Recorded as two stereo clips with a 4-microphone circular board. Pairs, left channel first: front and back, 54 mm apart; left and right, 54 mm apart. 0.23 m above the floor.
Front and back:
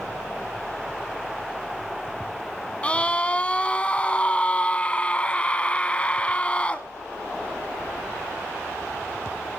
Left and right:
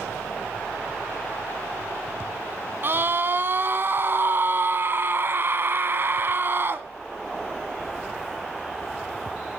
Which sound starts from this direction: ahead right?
A scream, at 2.8 s.